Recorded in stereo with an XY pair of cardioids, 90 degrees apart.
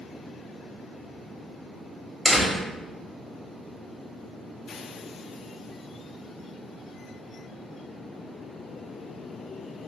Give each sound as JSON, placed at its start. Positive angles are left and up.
{"t": 2.2, "sound": "a door slam", "azimuth_deg": 0, "distance_m": 1.0}